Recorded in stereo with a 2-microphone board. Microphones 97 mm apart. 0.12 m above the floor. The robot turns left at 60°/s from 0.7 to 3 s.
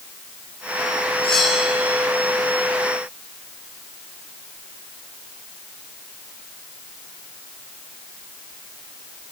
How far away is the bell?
About 7.5 m.